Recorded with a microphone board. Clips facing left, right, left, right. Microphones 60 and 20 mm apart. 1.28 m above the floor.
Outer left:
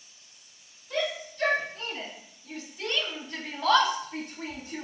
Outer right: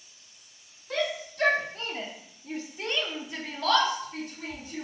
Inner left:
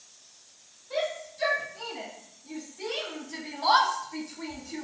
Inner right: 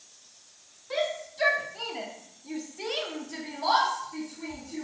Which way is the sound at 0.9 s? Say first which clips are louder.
Outer right 1 dB, inner right 1 dB; 65° right (ahead or behind).